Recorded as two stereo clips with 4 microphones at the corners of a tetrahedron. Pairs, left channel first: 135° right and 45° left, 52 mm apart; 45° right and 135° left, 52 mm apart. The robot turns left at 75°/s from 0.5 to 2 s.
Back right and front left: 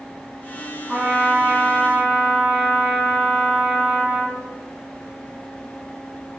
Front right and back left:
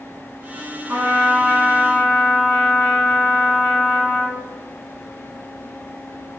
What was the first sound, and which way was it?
A trumpet, 115° left.